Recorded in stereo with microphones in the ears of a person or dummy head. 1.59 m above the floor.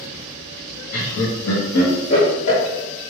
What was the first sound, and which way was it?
Laughter, 70° left (ahead or behind).